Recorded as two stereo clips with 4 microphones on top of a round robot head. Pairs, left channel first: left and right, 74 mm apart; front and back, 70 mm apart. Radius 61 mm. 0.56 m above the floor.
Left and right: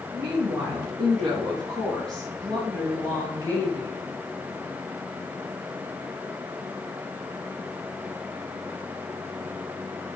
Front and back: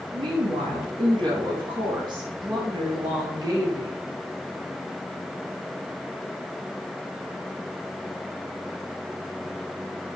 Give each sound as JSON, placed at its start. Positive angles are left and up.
{"t": 0.1, "sound": "a woman speaking", "azimuth_deg": -165, "distance_m": 5.5}